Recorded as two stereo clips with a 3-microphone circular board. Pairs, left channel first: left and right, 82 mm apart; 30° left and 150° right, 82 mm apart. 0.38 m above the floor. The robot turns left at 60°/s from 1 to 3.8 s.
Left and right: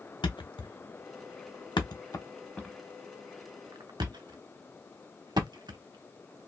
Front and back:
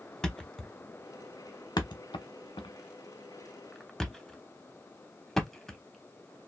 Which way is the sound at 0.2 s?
110° left.